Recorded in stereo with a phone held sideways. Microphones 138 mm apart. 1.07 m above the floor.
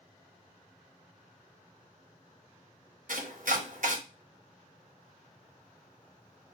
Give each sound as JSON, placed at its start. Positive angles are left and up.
{"t": 3.1, "sound": "chopping", "side_deg": -70, "distance_m": 1.1}